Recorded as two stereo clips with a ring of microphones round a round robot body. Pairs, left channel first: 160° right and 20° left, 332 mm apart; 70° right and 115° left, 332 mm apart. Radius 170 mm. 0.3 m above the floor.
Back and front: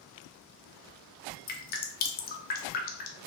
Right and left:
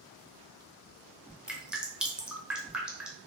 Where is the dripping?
165° right, 0.5 m.